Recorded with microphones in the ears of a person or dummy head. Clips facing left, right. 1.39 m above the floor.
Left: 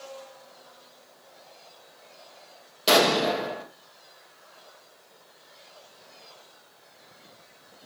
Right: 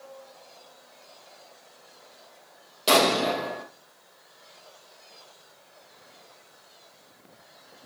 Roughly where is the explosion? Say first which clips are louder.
Left 1 dB; centre.